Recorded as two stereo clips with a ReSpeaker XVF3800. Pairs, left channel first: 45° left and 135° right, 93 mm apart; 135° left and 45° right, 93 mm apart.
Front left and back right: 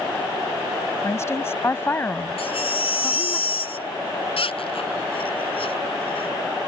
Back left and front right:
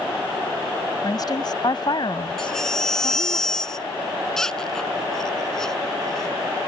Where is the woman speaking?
100° left; by 3.4 s 120° left.